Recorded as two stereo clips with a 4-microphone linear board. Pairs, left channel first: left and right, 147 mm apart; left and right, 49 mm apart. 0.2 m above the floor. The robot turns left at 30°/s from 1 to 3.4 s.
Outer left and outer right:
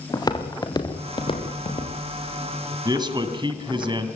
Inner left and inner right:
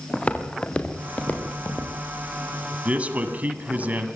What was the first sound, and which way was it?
Footsteps, 30° left (ahead or behind).